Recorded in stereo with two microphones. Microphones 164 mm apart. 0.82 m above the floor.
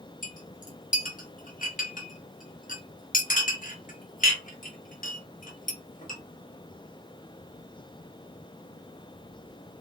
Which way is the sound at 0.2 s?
50° left (ahead or behind).